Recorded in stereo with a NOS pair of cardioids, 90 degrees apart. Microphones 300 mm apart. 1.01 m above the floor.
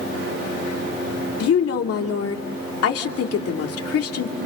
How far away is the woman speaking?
About 2.5 m.